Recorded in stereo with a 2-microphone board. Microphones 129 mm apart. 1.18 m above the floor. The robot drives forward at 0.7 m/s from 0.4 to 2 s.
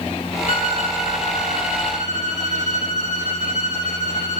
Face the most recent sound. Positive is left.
turn(degrees=65)  # may be behind; listen again after turning